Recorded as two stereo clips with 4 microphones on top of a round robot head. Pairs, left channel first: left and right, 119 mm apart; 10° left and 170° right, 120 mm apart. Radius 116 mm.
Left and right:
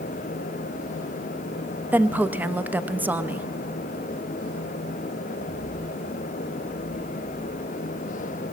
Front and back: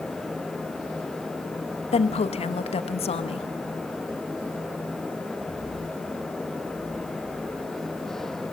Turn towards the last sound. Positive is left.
turn(degrees=-15)